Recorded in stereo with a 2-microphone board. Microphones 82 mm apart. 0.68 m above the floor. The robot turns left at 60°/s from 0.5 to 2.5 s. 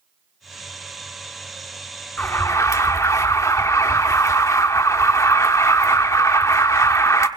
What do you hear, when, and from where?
2.2 s an alarm: 20° left (ahead or behind), 1.2 m; by 7.3 s 40° left (ahead or behind), 1.2 m